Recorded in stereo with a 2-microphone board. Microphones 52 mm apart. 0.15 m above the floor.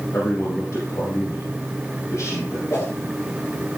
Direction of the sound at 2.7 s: 50° left (ahead or behind).